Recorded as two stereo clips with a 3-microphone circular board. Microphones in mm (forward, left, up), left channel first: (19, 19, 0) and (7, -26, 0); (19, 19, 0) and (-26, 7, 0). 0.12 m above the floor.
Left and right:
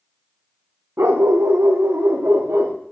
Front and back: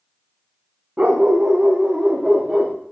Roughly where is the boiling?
I don't hear boiling.